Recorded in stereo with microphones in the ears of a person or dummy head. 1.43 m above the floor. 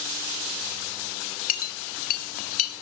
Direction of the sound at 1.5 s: 45° left (ahead or behind).